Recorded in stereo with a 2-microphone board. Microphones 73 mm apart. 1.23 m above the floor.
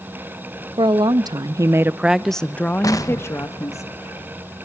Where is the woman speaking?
80° right, 1.1 m; by 3.8 s 45° left (ahead or behind), 1.6 m.